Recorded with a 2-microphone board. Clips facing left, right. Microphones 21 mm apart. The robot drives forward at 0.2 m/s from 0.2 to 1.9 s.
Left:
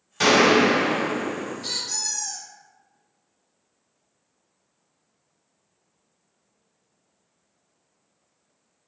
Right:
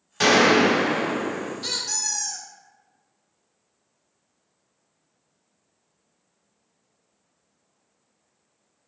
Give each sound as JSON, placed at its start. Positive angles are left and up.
{"t": 0.2, "sound": "a gunshot", "side_deg": -10, "distance_m": 1.5}
{"t": 1.6, "sound": "a squeak", "side_deg": -50, "distance_m": 0.7}